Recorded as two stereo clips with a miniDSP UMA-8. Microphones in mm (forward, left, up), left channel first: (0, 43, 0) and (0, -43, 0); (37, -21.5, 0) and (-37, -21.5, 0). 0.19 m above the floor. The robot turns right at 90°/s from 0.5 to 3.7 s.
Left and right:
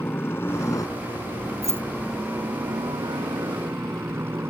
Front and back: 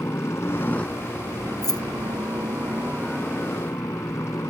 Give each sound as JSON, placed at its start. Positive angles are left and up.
{"t": 0.0, "sound": "a helicopter", "azimuth_deg": 40}
{"t": 1.6, "sound": "keys jangling", "azimuth_deg": -40}